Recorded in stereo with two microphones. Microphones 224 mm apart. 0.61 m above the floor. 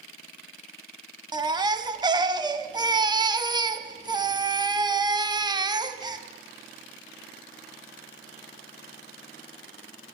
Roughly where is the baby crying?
Centre.